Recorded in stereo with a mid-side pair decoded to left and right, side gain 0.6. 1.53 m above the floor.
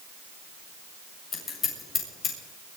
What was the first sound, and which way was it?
Scissors, 40° left.